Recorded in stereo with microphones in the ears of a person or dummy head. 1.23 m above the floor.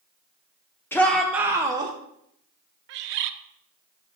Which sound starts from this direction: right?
A bird, at 2.9 s.